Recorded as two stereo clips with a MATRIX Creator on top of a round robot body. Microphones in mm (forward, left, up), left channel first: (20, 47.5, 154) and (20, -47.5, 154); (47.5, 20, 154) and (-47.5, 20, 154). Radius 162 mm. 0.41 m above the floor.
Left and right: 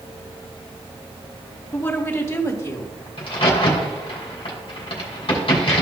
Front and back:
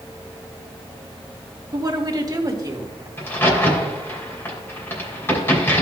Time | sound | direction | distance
1.7 | a woman speaking | 150° left | 2.0 m
3.2 | a crack | 65° left | 3 m